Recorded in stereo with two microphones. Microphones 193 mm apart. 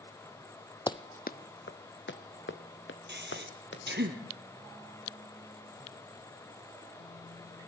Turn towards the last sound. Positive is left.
turn(degrees=-65)  # may be behind; listen again after turning